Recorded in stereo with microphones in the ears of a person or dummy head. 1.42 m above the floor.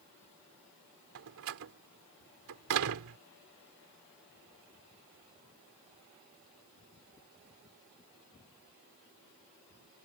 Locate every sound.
1.1 s a door slam: 75° right (ahead or behind)